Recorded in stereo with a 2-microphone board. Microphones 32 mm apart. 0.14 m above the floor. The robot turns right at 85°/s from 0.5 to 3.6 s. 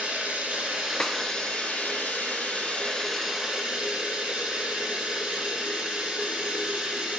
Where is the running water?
55° right, 4 m; by 7.2 s 155° right, 4 m.